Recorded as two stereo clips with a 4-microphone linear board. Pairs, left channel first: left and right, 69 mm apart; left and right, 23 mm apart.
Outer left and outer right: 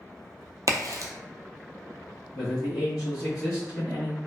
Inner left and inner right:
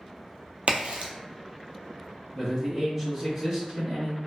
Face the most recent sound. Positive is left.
turn(degrees=-5)  # may be behind; listen again after turning